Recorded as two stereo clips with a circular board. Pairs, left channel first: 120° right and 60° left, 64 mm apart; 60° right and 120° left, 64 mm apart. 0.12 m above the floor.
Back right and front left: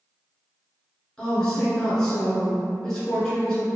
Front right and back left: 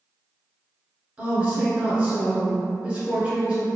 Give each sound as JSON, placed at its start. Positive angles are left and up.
{"t": 1.2, "sound": "a woman speaking", "azimuth_deg": 165, "distance_m": 1.2}